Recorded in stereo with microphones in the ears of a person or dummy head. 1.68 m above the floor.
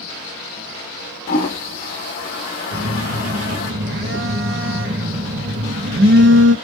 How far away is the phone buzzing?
About 0.9 m.